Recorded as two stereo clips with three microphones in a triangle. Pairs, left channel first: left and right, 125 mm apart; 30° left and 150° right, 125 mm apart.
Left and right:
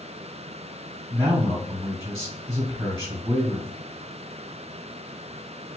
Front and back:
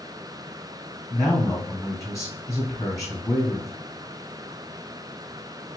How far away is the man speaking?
About 2 m.